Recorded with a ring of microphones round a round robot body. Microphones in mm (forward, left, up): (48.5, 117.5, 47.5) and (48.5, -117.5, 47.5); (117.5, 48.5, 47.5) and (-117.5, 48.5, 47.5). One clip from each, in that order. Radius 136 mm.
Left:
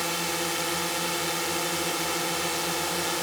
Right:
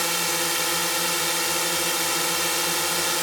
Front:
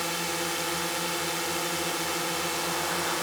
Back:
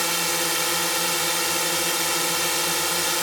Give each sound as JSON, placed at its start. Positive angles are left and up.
{"t": 0.0, "sound": "a drone", "azimuth_deg": -140}